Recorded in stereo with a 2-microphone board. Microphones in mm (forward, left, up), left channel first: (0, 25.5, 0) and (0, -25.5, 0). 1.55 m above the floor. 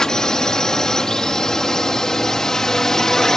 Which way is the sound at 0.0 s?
10° left (ahead or behind).